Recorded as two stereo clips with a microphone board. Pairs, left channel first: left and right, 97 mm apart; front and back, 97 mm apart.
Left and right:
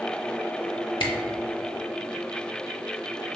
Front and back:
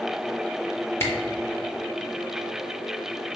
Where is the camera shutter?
65° left, 1.0 m.